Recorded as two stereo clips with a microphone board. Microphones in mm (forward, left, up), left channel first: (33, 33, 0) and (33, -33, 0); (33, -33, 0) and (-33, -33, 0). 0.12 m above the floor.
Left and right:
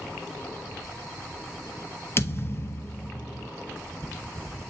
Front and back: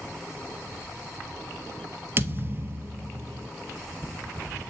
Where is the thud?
135° left, 0.8 m.